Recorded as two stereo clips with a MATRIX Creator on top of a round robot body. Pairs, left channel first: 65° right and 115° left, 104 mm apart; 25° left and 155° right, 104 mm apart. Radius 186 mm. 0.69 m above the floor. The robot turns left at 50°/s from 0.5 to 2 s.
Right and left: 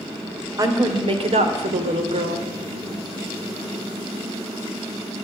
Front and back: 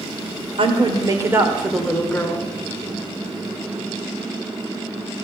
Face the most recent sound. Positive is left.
turn(degrees=100)